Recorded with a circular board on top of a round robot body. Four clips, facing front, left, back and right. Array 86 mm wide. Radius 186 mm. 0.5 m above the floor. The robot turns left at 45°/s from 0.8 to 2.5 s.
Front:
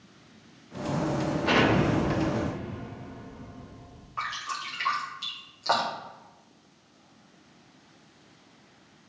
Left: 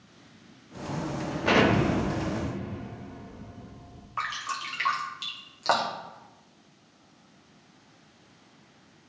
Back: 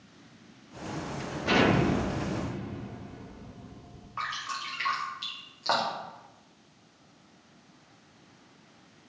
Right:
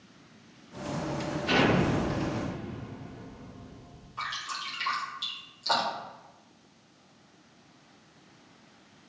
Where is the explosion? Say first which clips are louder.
Left 3 dB, even; 80° left, 1.6 m; by 4.1 s 30° left, 1.6 m.